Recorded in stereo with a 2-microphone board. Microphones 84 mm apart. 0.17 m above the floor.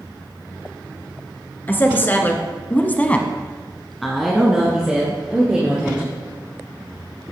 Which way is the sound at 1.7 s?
20° left (ahead or behind).